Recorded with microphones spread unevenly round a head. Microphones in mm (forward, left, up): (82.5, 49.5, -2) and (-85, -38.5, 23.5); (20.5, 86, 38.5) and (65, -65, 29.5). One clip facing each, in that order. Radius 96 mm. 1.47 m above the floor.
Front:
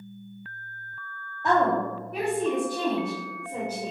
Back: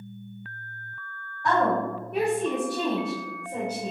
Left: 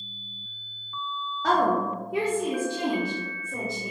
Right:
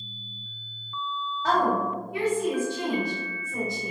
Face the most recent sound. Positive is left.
turn(degrees=130)